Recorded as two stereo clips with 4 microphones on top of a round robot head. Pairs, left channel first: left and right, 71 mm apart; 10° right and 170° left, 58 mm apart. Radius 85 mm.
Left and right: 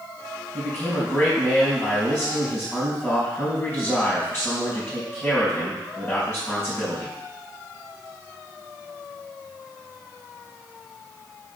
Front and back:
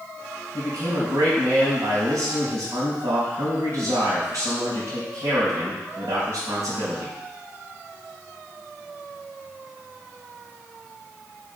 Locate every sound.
0.5 s a man speaking: 155° left, 3.5 m